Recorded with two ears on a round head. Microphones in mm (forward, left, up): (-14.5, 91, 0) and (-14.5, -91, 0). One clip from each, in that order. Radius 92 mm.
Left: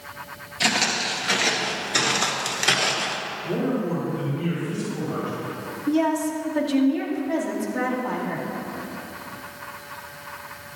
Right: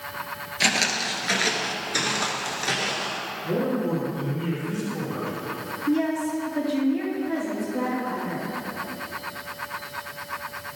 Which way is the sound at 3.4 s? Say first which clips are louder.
Right 1 dB; 15° right (ahead or behind).